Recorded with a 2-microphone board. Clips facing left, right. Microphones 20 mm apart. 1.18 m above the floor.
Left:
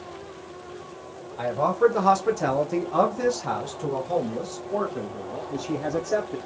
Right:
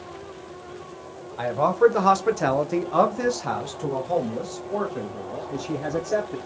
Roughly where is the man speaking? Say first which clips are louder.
Right 2 dB; centre.